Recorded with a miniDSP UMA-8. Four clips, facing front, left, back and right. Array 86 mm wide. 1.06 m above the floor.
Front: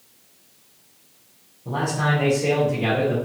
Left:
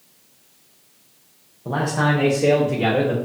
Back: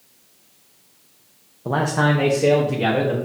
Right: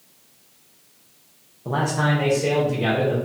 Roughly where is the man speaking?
Behind.